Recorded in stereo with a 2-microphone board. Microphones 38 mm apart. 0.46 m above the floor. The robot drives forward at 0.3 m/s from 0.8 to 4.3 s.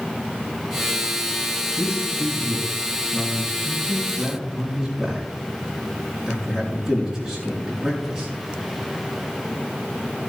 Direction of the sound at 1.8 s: 10° right (ahead or behind).